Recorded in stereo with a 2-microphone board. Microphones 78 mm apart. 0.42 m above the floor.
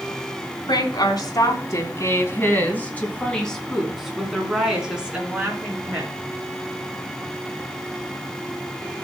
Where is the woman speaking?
60° left (ahead or behind), 4 m; by 6.1 s 20° right (ahead or behind), 6 m.